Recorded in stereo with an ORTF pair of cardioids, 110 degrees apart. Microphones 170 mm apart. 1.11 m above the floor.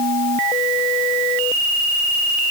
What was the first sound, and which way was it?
Only background noise.